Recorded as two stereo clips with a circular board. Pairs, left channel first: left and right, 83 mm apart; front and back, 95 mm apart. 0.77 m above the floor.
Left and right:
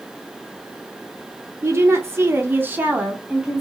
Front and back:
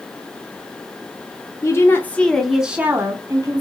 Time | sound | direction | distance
1.6 | a woman speaking | 45° right | 0.8 m